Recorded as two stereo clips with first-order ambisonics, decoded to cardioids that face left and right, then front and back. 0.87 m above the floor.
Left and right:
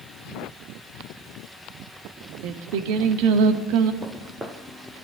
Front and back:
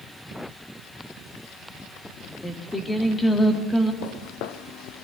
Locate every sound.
2.4 s singing: 80° right, 1.9 m
4.0 s footsteps: 20° right, 1.6 m; by 5.0 s 5° left, 1.8 m